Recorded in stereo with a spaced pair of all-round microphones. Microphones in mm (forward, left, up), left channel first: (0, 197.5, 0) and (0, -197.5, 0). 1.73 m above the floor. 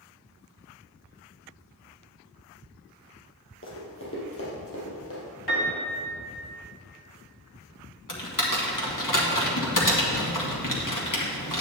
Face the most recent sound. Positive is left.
turn(degrees=50)  # may be behind; listen again after turning